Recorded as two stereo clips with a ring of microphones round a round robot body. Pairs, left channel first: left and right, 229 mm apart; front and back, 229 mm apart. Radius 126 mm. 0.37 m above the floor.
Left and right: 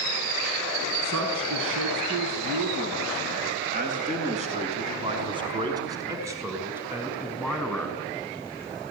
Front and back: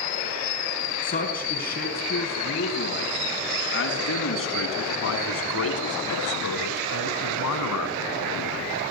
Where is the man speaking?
55° right, 4.5 m; by 8.0 s straight ahead, 4.5 m.